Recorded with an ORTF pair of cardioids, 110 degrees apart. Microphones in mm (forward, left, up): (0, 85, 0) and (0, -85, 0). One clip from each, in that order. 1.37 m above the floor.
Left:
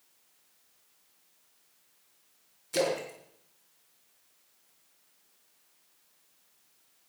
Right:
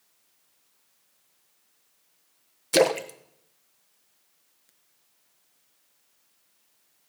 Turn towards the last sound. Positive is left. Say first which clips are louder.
# right 8 dB
turn(degrees=-65)